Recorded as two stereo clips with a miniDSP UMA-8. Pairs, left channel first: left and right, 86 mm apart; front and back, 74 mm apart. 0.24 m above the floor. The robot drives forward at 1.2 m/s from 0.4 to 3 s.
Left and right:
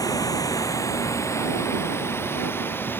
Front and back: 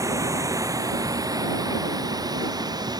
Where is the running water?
135° left; by 3.0 s 155° left.